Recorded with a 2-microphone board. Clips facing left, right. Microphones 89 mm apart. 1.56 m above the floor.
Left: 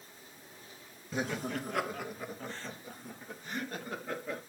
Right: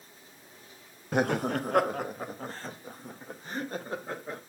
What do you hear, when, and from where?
1.1 s laughter: 60° right (ahead or behind), 0.5 m; by 4.4 s 35° right (ahead or behind), 2.5 m